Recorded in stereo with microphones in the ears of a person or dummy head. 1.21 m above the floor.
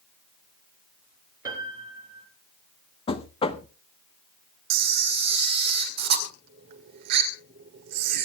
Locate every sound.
1.4 s a piano: 20° right (ahead or behind), 3.5 m
3.1 s knocking: 30° left (ahead or behind), 0.8 m
4.7 s a camera shutter: 55° right (ahead or behind), 1.9 m